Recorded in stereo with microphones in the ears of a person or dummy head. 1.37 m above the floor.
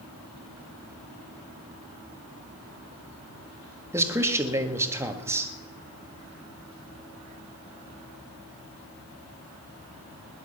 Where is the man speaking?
10° right (ahead or behind), 1.8 m.